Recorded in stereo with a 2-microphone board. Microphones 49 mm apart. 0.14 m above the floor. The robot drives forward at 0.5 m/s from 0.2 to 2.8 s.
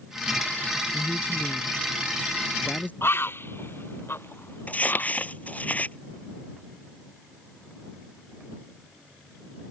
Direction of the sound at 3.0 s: 55° left (ahead or behind).